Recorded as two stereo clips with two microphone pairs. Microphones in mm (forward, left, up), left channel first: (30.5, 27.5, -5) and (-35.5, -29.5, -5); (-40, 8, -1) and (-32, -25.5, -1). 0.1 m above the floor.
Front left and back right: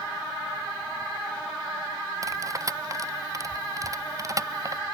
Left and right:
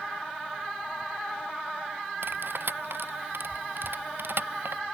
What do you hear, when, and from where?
2.2 s cutlery clinking: 90° right